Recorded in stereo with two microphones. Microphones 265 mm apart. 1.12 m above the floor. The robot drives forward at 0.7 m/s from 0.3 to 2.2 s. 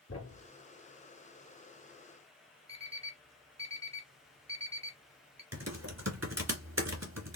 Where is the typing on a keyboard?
65° right (ahead or behind), 2.0 m.